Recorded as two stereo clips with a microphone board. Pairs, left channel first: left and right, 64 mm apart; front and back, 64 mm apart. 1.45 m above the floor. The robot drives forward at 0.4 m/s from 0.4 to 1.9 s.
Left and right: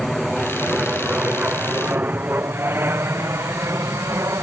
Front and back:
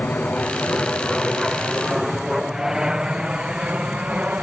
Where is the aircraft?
5° right; by 4.4 s 115° right.